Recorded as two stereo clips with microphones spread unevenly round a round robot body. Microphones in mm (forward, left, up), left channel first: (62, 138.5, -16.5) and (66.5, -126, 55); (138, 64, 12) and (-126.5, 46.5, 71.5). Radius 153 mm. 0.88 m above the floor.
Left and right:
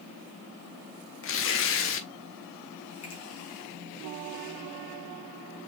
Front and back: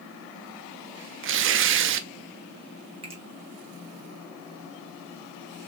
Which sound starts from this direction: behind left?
Tearing paper, at 1.2 s.